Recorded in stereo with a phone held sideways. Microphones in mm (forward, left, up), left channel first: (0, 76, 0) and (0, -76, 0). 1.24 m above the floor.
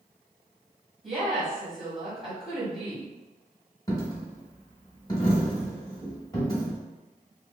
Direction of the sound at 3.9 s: 25° left (ahead or behind).